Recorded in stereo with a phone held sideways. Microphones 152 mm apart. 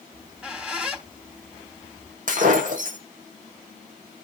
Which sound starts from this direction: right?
Breaking glass, at 2.3 s.